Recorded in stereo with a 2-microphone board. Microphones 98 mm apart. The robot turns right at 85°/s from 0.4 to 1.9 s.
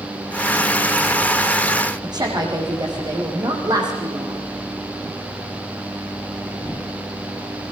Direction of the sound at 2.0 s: 45° right (ahead or behind).